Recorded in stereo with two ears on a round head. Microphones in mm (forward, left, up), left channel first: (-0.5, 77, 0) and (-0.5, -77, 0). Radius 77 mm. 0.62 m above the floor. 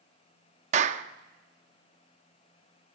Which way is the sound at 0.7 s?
40° right (ahead or behind).